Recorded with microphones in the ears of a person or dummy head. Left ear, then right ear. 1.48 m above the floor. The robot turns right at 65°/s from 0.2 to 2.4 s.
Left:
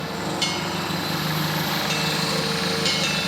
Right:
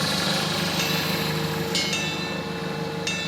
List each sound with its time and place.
0.0 s an engine running: 75° right, 2.5 m; by 3.3 s 70° left, 2.5 m